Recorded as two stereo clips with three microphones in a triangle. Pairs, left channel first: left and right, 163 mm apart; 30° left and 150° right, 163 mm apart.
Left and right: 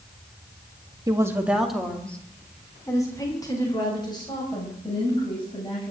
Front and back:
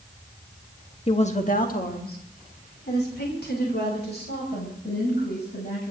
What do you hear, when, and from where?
1.1 s a woman speaking: 25° right, 1.6 m; by 5.9 s 35° left, 7 m